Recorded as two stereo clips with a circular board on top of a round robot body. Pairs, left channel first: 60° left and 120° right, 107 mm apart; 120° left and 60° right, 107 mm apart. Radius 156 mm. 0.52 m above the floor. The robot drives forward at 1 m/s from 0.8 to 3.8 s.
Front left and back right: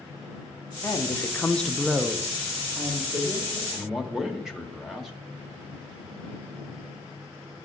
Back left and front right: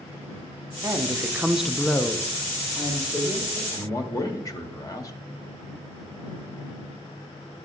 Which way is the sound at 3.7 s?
150° left.